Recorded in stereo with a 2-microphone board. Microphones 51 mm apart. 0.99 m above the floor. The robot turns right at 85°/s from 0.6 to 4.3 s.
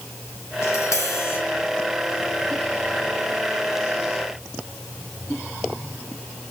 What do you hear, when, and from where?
0.6 s tapping: 65° left, 4 m; by 1.4 s 135° left, 4 m